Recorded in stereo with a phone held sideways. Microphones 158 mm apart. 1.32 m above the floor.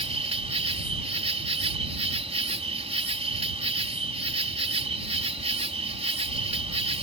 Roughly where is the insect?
Right.